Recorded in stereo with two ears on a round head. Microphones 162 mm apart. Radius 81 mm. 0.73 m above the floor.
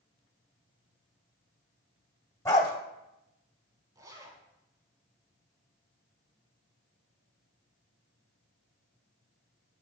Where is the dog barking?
15° left (ahead or behind), 1.2 m.